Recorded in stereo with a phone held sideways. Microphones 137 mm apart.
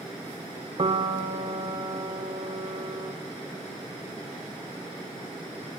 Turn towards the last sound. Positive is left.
turn(degrees=-40)  # may be behind; listen again after turning